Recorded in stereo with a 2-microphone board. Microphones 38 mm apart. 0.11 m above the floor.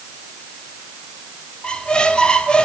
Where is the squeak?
25° left (ahead or behind), 1.5 m.